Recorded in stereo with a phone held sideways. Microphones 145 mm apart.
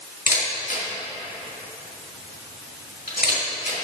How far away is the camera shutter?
About 2.5 m.